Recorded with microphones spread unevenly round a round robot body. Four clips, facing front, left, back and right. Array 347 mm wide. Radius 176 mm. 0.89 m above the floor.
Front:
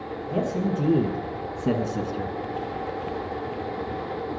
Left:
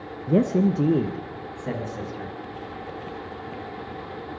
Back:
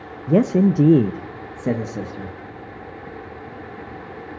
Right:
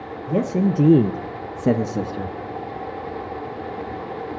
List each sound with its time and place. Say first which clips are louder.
0.3 s a man speaking: even, back 10 dB; 170° left, 0.6 m; by 2.4 s 85° right, 1.1 m